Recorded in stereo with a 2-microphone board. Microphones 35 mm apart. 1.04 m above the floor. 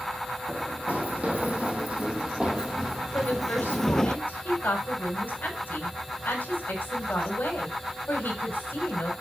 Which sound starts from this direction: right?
Running footsteps, at 0.5 s.